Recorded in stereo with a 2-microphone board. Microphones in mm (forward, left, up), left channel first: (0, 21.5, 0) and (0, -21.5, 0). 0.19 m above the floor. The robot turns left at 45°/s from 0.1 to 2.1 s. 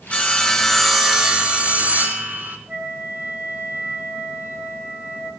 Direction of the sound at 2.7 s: 50° right (ahead or behind).